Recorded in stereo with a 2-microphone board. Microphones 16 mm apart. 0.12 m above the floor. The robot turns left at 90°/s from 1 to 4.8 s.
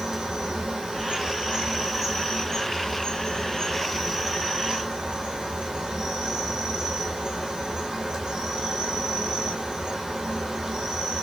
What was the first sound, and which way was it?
An insect, 80° right.